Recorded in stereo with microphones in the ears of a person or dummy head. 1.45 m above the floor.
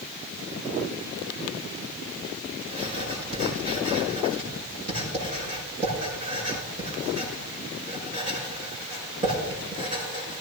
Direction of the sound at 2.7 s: 35° right (ahead or behind).